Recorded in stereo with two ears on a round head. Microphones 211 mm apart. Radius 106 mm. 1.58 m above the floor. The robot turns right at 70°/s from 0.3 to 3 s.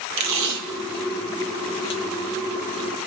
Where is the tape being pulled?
90° right, 0.8 m; by 2.0 s 30° left (ahead or behind), 0.8 m.